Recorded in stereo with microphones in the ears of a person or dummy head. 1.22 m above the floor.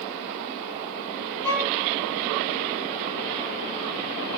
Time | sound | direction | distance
1.4 | a violin | 20° left (ahead or behind) | 10 m